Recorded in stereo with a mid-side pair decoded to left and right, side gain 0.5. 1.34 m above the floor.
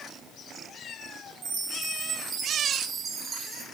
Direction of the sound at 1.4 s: 45° right.